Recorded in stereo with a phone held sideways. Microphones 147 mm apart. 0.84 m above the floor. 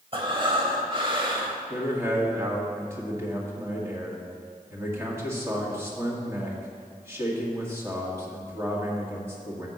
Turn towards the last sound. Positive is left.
turn(degrees=-20)  # may be behind; listen again after turning